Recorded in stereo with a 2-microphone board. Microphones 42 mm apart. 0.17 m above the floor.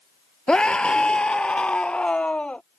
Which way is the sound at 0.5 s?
20° left (ahead or behind).